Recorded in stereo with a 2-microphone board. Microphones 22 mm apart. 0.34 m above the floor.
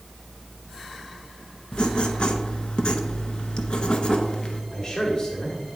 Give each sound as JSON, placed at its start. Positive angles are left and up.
{"t": 1.7, "sound": "writing", "side_deg": 50, "distance_m": 0.6}
{"t": 4.7, "sound": "a man speaking", "side_deg": 25, "distance_m": 1.2}